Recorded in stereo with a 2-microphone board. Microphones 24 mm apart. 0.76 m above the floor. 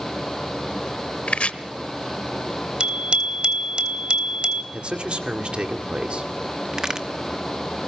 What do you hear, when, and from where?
1.3 s chopping: 65° left (ahead or behind), 1.0 m
2.8 s a bicycle bell: 50° right (ahead or behind), 3 m
4.7 s a man speaking: 50° right (ahead or behind), 2 m
6.7 s a crack: 25° right (ahead or behind), 1.2 m